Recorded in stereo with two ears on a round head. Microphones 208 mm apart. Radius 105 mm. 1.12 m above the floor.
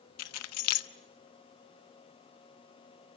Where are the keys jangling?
75° left (ahead or behind), 0.8 m.